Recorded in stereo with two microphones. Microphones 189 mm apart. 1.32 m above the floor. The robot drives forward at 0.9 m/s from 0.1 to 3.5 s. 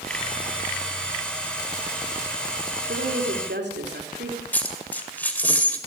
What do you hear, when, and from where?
2.9 s a woman speaking: 85° right, 3.5 m; by 4.4 s 75° right (ahead or behind), 3.5 m
4.5 s a dropped coin: 10° left (ahead or behind), 1.9 m